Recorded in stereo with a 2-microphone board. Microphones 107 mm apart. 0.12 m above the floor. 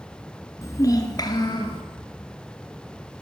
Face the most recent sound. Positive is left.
turn(degrees=45)  # may be behind; listen again after turning